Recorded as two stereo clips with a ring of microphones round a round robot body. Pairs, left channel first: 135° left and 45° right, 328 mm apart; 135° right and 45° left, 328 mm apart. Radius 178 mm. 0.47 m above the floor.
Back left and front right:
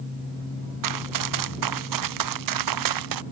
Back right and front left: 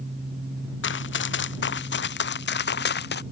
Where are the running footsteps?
80° right; by 3.2 s 75° right.